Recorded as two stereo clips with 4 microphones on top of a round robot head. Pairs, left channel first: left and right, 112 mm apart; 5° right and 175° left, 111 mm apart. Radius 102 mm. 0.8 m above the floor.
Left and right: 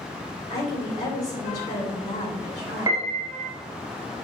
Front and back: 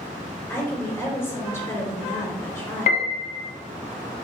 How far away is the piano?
About 0.9 m.